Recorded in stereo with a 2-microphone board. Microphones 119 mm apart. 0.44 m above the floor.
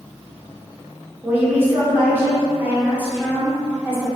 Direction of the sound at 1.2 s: 15° right (ahead or behind).